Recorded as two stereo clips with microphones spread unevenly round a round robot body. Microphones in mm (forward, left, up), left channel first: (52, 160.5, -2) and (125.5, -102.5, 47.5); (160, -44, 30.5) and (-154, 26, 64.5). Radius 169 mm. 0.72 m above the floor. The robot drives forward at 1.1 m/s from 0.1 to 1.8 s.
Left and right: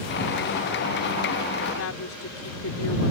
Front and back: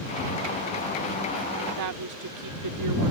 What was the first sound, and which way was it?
A woman speaking, 135° left.